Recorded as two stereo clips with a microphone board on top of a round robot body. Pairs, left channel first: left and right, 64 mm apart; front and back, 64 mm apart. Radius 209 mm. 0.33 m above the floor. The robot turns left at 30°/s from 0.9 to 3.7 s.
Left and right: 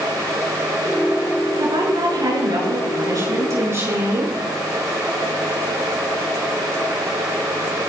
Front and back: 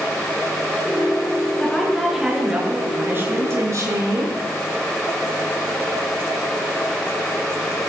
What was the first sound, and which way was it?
A woman speaking, 75° right.